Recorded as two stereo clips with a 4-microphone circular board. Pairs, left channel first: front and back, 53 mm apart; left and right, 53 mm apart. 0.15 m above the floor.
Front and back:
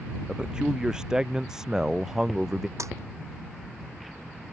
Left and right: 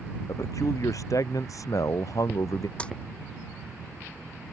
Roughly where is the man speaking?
Left.